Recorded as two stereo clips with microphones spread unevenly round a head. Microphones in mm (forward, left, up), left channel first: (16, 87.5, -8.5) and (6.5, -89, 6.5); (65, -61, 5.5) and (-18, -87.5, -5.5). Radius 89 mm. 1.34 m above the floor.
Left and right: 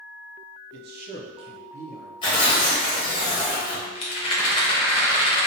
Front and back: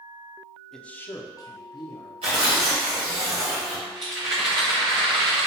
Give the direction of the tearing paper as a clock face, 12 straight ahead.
7 o'clock.